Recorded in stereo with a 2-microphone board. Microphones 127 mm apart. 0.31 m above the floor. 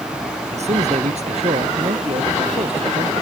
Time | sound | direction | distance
0.5 | a man speaking | 55° right (ahead or behind) | ?